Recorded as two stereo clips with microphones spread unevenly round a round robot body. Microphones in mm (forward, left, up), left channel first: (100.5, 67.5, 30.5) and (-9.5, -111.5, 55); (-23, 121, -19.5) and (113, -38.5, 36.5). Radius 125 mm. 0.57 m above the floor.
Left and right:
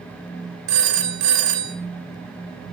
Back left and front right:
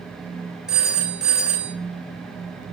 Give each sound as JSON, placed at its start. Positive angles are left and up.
{"t": 0.7, "sound": "a phone ringing", "azimuth_deg": -145, "distance_m": 1.4}